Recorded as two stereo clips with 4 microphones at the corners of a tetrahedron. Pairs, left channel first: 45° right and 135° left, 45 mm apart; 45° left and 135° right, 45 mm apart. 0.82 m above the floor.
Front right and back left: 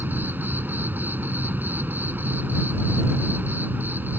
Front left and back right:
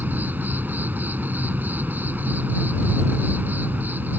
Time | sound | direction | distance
0.0 | an insect | straight behind | ?